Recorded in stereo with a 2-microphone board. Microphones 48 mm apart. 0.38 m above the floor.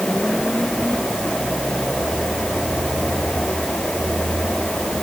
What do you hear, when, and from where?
Only background noise.